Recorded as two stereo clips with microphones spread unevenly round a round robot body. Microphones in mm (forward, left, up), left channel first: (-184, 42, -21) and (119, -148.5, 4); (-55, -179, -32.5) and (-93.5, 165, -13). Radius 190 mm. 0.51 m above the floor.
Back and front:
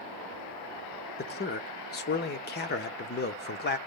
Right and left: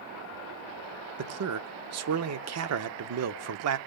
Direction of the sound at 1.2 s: 105° left.